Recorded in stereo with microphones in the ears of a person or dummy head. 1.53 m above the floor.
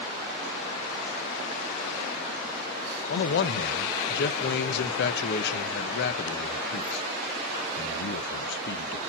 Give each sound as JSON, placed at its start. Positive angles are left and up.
{"t": 3.1, "sound": "a man speaking", "side_deg": 65, "distance_m": 1.3}